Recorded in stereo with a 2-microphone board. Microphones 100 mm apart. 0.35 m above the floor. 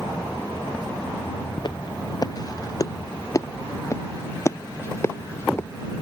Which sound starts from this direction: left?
Footsteps, at 1.6 s.